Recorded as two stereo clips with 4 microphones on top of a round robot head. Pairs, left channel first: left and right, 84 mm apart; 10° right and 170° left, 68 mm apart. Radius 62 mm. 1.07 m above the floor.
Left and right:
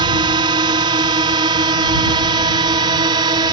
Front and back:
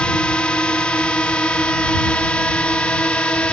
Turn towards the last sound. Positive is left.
turn(degrees=-85)